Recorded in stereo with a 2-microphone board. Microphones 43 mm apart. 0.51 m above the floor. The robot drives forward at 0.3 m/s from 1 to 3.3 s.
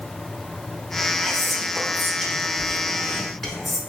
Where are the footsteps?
No footsteps in this recording.